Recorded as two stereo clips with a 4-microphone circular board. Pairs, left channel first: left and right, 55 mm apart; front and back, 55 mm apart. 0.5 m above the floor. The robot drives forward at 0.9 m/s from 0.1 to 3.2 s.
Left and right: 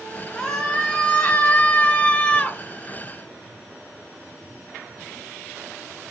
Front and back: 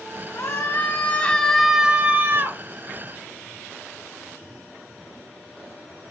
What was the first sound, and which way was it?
A scream, 20° left.